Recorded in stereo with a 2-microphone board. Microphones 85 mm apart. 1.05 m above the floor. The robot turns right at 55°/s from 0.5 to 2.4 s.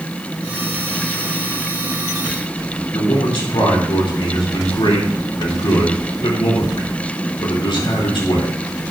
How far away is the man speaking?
About 3 m.